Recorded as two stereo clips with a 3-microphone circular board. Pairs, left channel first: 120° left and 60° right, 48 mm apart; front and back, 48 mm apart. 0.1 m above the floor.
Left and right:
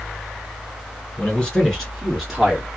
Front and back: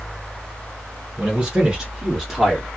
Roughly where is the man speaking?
Behind left.